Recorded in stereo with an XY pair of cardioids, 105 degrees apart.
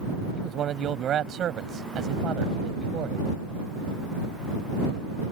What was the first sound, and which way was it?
A man speaking, 60° right.